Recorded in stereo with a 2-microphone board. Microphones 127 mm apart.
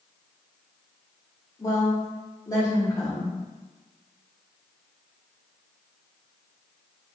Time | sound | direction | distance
1.6 | a woman speaking | 25° left (ahead or behind) | 1.3 m